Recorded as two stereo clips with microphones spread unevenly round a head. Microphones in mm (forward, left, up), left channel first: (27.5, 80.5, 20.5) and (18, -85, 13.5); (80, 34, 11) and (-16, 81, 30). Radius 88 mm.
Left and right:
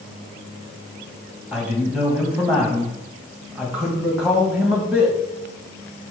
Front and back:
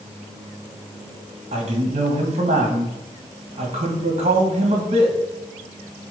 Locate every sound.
1.5 s a man speaking: straight behind, 1.5 m